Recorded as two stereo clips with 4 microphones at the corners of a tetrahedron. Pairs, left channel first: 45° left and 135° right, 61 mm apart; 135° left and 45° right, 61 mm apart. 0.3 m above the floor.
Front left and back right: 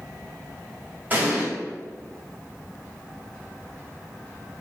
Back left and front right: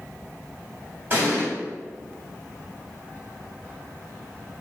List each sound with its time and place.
1.1 s an explosion: 90° right, 1.6 m